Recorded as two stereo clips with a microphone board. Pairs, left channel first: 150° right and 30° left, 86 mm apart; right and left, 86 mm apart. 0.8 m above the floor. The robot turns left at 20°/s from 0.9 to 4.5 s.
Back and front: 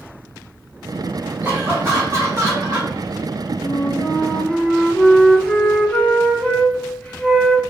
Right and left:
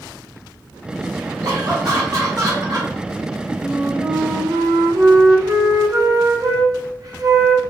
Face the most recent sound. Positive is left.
turn(degrees=135)